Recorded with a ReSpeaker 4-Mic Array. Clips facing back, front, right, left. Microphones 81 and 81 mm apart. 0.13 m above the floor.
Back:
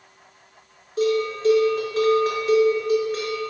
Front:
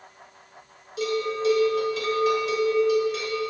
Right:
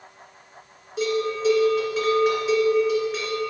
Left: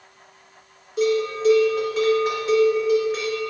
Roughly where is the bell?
Behind.